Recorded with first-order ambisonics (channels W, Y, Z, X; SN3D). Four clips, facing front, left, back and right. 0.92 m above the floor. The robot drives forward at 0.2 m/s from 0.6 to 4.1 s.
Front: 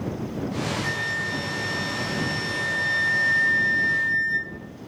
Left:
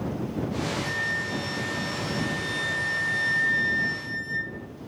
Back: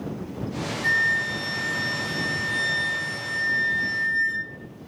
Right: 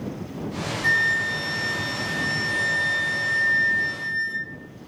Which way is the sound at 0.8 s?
110° right.